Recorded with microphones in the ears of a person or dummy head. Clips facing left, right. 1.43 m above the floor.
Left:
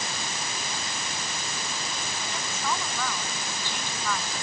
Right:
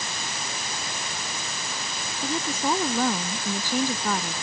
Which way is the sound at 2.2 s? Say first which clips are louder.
Right 8 dB; 35° right (ahead or behind).